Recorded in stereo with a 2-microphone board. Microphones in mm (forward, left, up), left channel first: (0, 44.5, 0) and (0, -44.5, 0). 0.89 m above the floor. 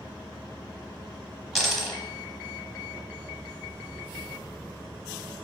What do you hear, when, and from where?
1.6 s a dropped coin: centre (ahead or behind), 0.9 m